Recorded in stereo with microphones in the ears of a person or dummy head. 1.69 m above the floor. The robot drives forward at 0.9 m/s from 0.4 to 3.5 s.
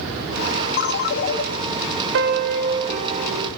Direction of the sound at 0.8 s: 55° left (ahead or behind).